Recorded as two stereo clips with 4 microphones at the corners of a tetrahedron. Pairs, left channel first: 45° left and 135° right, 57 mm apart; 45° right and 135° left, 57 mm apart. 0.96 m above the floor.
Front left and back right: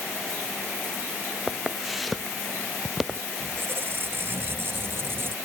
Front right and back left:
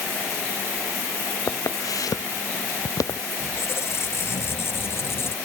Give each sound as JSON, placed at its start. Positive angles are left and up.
{"t": 1.5, "sound": "footsteps", "azimuth_deg": -45}
{"t": 3.4, "sound": "a squeak", "azimuth_deg": -90}